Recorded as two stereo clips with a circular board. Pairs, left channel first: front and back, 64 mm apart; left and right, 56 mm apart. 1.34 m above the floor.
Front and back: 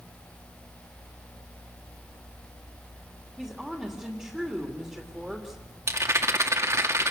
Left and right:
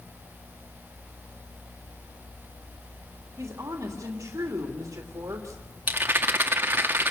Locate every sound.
3.4 s a woman speaking: 95° right, 3 m
5.9 s a rattle: 140° right, 2 m